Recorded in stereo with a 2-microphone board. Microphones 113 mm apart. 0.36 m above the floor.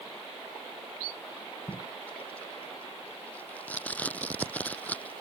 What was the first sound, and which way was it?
Tape being pulled, 15° left (ahead or behind).